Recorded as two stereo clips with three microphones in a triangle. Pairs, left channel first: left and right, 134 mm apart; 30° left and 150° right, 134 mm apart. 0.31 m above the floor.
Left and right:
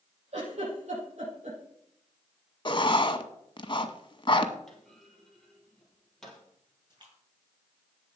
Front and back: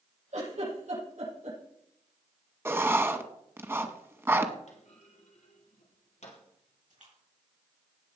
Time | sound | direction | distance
0.3 | a giggle | 125° right | 7.5 m
2.6 | writing | 140° left | 1.0 m
4.7 | a clunk | 5° left | 4 m
6.9 | a splash | 140° right | 5 m